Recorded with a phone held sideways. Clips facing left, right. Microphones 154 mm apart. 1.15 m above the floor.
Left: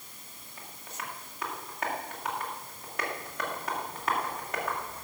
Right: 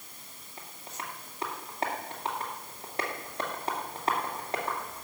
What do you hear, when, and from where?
0.6 s tapping: 30° right (ahead or behind), 2.5 m